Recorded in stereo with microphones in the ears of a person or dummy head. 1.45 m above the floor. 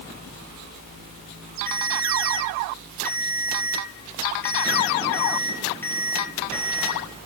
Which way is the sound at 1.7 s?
10° left (ahead or behind).